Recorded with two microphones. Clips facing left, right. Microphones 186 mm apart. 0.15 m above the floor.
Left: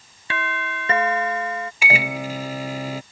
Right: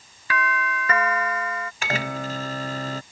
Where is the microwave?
10° left (ahead or behind).